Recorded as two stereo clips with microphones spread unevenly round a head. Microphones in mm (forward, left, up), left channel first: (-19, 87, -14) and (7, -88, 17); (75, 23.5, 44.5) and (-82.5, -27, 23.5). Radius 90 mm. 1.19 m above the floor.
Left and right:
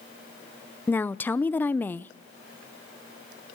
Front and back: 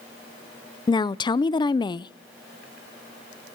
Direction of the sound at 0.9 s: 60° left.